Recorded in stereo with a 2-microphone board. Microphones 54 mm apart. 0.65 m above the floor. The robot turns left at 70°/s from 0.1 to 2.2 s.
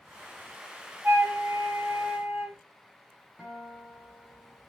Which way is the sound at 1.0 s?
60° right.